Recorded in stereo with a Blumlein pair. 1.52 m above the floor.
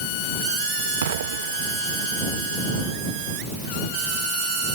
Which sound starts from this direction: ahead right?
An explosion, at 1.0 s.